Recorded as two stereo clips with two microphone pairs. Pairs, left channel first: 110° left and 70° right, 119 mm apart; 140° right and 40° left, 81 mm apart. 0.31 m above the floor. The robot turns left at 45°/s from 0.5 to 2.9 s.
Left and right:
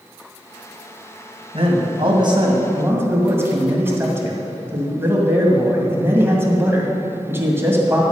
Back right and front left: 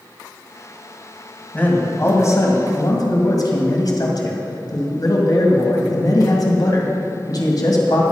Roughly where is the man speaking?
Right.